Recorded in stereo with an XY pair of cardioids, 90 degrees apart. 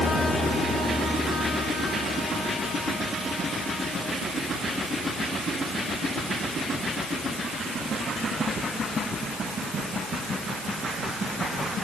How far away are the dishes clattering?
I don't hear dishes clattering.